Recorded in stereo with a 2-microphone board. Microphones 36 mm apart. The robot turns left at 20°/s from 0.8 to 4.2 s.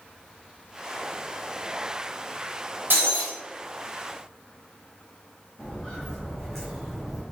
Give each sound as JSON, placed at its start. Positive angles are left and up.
{"t": 2.9, "sound": "breaking glass", "side_deg": -75, "distance_m": 1.7}
{"t": 5.6, "sound": "footsteps", "side_deg": 30, "distance_m": 1.9}